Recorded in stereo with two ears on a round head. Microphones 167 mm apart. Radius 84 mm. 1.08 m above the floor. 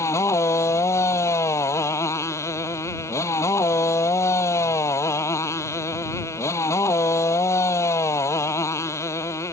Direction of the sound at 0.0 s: 15° left (ahead or behind).